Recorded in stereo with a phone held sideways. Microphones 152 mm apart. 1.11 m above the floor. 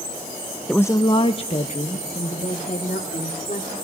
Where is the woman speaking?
5° left (ahead or behind), 0.5 m; by 3.7 s 50° left (ahead or behind), 3.5 m.